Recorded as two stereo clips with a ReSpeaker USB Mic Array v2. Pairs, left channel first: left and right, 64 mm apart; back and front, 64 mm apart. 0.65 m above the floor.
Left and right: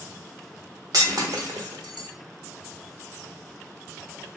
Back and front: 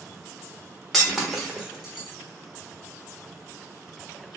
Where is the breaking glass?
90° right, 1.1 m.